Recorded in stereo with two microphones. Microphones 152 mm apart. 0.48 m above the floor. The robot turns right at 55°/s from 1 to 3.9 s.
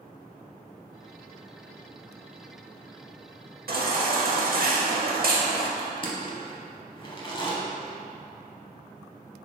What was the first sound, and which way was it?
A baby crying, 85° right.